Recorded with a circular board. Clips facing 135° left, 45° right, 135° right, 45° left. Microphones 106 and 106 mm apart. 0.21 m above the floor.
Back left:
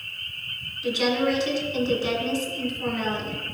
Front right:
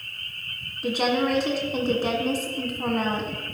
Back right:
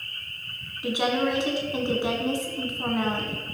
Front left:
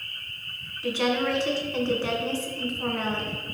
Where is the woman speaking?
65° right, 1.8 m.